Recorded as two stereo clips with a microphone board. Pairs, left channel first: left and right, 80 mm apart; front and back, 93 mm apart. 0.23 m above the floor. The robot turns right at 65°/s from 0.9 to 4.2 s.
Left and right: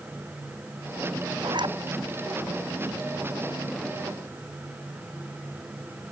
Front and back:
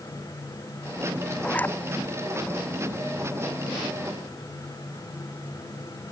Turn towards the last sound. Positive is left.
turn(degrees=95)